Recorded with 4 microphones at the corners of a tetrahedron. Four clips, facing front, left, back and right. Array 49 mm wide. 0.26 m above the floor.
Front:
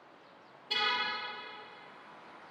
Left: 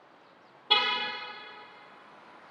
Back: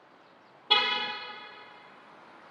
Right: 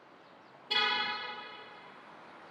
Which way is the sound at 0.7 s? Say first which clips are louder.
Left 4 dB, back 5 dB; 135° left.